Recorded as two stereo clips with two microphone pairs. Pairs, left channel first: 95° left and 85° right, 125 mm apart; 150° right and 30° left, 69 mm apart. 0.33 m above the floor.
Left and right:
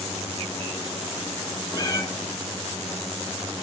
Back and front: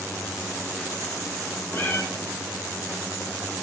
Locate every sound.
1.7 s a cat meowing: 150° left, 0.8 m